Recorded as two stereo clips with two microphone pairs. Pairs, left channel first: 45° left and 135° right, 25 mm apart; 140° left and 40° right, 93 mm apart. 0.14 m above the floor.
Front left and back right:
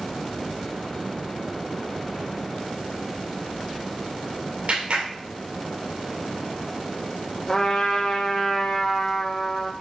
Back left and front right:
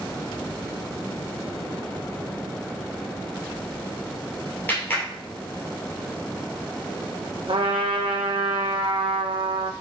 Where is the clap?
155° right, 3 m.